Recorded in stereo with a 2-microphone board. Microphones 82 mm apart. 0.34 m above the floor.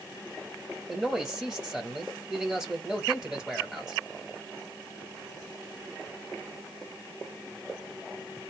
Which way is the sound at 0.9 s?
10° right (ahead or behind).